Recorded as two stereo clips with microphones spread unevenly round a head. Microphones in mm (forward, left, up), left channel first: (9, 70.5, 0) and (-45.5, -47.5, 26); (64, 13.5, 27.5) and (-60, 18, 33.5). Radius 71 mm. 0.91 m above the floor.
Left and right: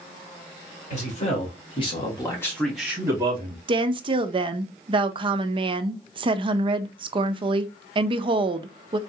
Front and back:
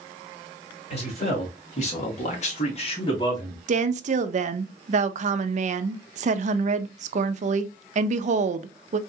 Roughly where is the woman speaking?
Behind.